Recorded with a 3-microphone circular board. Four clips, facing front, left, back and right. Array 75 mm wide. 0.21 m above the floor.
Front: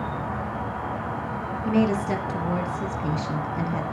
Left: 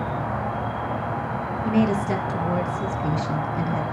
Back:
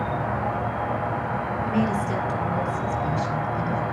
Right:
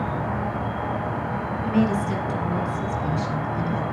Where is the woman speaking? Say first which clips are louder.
Left 1 dB, front 4 dB; 45° left, 1.6 m.